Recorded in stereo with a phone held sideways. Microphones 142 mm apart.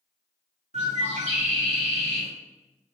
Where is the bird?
50° right (ahead or behind), 1.8 m.